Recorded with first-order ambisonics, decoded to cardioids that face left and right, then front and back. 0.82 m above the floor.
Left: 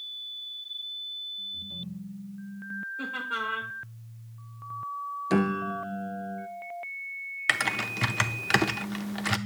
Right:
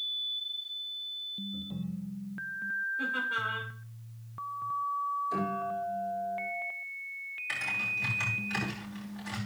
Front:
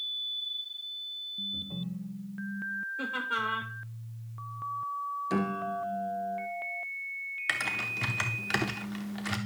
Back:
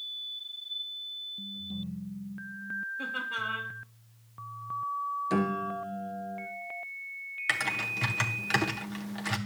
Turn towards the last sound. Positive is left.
turn(degrees=95)